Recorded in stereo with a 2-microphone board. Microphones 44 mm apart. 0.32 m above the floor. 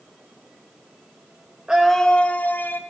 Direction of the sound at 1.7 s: 20° right (ahead or behind).